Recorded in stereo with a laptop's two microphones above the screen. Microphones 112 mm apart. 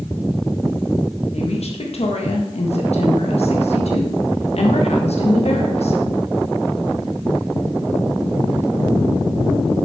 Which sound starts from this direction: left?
A woman speaking, at 1.3 s.